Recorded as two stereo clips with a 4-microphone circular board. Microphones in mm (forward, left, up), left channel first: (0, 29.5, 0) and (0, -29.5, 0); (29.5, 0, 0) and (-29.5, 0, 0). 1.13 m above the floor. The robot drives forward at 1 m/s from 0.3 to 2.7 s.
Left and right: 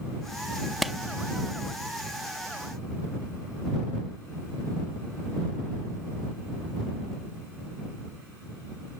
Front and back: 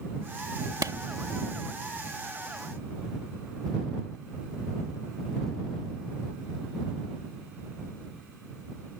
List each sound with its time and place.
0.8 s a clap: 175° right